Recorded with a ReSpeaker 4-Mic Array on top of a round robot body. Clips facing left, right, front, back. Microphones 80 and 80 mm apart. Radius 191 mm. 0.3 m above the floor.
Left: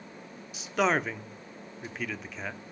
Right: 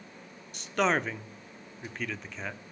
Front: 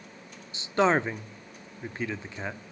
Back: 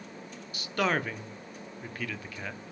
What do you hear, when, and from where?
0.5 s a man speaking: 10° left, 1.3 m